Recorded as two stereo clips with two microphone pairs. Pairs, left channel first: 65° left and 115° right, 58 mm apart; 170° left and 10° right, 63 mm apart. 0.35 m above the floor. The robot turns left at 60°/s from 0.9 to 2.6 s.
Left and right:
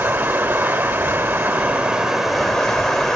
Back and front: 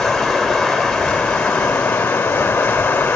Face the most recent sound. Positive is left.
turn(degrees=150)